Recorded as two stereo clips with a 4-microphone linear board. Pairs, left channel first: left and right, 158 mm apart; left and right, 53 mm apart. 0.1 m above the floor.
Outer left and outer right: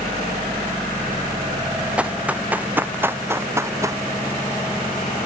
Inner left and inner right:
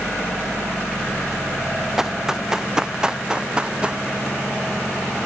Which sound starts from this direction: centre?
Running footsteps, at 2.0 s.